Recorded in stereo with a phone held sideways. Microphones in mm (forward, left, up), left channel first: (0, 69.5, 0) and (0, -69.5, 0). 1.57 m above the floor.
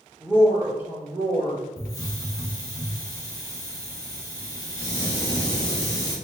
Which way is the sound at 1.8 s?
25° left (ahead or behind).